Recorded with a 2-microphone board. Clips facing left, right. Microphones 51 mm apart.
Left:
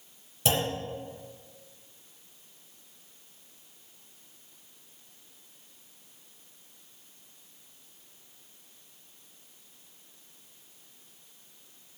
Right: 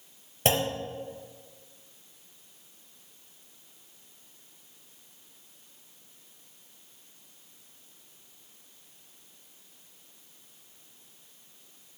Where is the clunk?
40° right (ahead or behind), 4 m.